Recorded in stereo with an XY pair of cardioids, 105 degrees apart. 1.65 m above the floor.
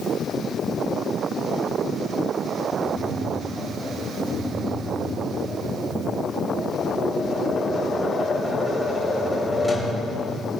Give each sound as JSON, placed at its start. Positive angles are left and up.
{"t": 2.8, "sound": "tapping", "azimuth_deg": 10, "distance_m": 4.0}